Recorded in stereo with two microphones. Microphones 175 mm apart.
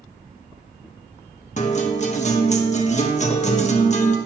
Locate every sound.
1.6 s a guitar: 40° left (ahead or behind), 1.5 m